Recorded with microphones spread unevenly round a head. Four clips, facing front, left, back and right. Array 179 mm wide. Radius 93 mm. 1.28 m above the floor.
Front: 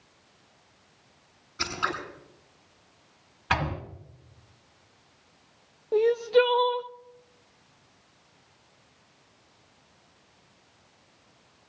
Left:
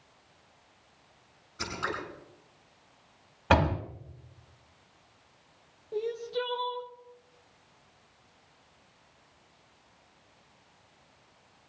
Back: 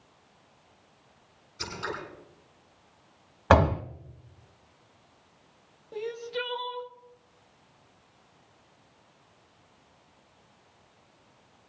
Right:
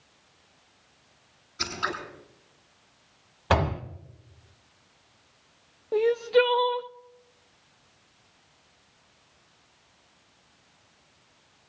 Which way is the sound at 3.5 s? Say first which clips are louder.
Even, back 8 dB; 170° left.